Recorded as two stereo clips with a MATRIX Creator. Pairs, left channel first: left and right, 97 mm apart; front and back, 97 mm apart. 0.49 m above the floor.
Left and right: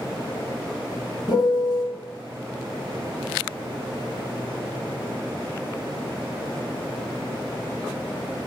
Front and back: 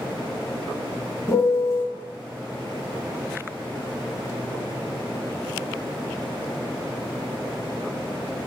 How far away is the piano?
About 0.5 m.